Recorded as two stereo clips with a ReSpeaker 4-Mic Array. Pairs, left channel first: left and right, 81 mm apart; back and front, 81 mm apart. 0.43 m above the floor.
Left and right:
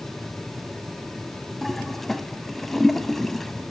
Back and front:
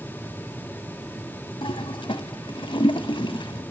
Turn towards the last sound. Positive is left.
turn(degrees=175)